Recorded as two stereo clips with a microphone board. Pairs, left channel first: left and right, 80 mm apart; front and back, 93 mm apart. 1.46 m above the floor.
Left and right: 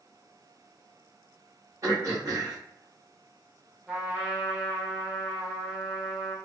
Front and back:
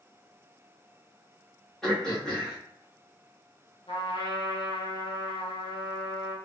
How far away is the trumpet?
About 0.8 m.